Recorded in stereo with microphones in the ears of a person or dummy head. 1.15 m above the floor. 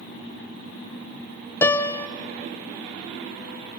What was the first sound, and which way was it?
A piano, 10° left (ahead or behind).